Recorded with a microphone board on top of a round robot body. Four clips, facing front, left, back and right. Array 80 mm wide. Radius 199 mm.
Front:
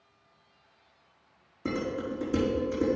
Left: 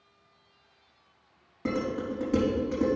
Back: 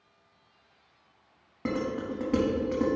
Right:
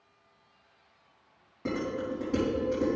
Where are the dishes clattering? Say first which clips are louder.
Left 2 dB, back 1 dB; 170° left, 3.5 m.